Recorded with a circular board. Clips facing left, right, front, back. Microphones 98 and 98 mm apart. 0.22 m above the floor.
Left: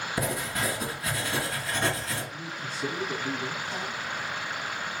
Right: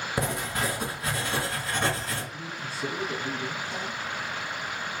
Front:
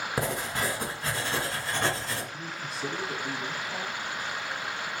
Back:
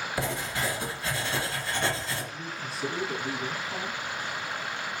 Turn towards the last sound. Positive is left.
turn(degrees=95)